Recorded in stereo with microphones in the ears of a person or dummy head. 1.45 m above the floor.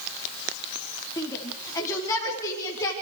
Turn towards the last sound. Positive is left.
turn(degrees=20)  # may be behind; listen again after turning